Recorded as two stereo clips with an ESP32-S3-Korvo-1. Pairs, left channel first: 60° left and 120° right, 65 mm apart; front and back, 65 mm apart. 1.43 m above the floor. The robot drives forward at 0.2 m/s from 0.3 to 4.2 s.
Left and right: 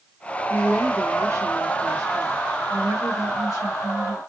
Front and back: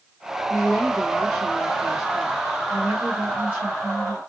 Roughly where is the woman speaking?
Right.